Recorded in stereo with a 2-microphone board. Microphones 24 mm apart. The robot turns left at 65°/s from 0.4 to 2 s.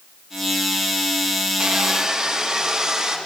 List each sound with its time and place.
1.6 s sawing: 60° right (ahead or behind), 1.2 m; by 3.2 s 35° right (ahead or behind), 1.2 m